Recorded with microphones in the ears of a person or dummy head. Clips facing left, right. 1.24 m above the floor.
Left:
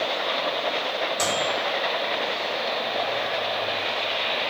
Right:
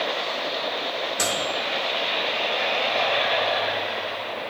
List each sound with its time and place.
1.2 s a microwave: 10° right (ahead or behind), 0.8 m